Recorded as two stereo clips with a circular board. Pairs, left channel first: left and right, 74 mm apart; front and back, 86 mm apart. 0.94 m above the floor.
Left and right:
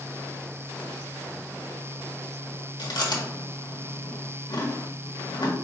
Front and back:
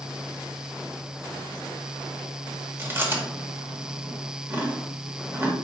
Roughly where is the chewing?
Behind left.